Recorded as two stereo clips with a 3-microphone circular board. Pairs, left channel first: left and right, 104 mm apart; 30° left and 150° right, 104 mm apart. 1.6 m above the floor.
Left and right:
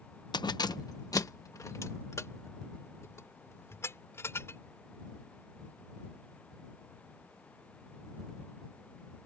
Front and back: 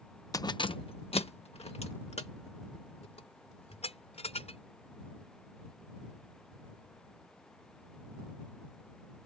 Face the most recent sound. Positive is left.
turn(degrees=25)